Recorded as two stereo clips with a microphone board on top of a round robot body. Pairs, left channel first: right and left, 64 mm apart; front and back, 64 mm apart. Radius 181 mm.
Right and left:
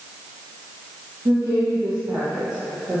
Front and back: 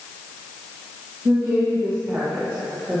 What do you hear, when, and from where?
1.2 s a woman speaking: 130° left, 1.8 m